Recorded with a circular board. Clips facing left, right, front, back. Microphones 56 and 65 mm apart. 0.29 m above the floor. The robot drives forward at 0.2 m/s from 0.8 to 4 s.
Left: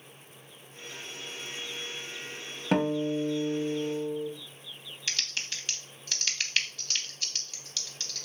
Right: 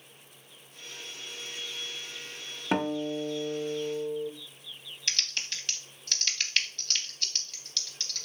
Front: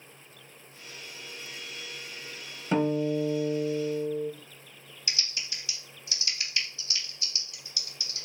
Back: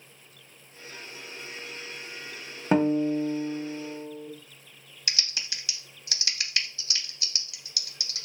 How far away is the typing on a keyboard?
About 0.5 m.